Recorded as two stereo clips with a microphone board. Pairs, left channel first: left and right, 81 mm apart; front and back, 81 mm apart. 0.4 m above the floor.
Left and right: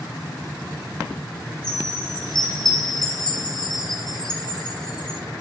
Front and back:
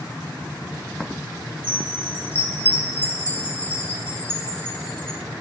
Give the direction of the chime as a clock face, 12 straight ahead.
8 o'clock.